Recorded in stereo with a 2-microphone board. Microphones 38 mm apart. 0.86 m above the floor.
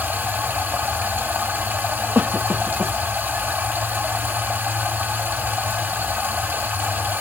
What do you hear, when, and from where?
0.0 s running water: 55° right (ahead or behind), 1.6 m
2.1 s a cough: 50° right (ahead or behind), 1.2 m